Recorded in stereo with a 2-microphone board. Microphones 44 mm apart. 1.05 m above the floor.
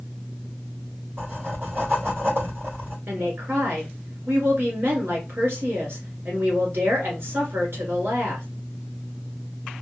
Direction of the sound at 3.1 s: 55° right (ahead or behind).